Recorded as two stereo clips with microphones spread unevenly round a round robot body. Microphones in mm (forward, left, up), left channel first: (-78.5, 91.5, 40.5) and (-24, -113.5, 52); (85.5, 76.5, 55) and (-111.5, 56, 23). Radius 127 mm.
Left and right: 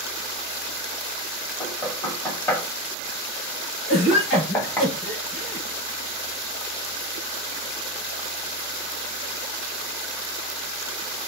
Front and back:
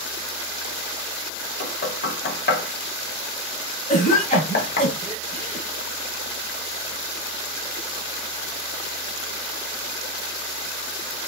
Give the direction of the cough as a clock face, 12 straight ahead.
10 o'clock.